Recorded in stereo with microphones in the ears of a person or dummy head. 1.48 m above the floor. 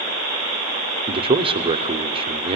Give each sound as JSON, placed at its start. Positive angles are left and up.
{"t": 1.1, "sound": "a man speaking", "side_deg": -25, "distance_m": 0.7}